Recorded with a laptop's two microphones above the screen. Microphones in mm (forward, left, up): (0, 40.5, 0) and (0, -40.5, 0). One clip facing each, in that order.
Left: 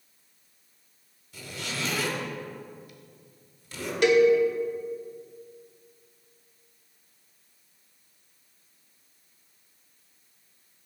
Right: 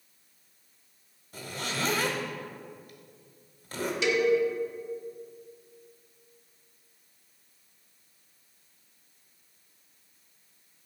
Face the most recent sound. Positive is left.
turn(degrees=50)  # may be behind; listen again after turning